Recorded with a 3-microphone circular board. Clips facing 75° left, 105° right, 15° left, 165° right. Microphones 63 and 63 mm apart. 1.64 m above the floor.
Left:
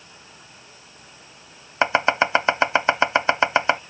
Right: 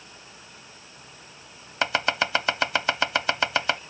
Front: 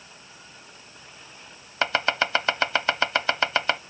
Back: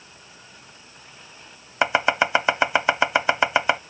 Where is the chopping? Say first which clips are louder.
Left 6 dB, back 4 dB; 125° left.